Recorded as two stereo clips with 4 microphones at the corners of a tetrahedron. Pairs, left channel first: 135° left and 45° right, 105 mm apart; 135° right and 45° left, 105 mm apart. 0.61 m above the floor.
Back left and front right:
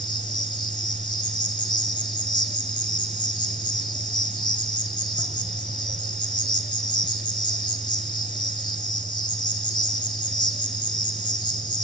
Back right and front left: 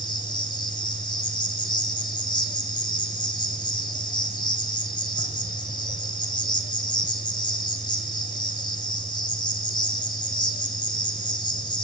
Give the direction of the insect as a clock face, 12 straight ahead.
6 o'clock.